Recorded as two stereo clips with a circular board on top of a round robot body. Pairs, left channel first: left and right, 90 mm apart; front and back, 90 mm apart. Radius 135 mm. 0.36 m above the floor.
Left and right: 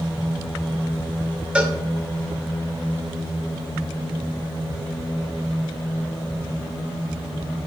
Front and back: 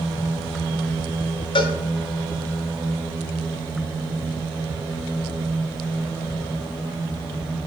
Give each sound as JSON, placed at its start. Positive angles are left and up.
{"t": 1.6, "sound": "a cowbell", "azimuth_deg": -15, "distance_m": 0.6}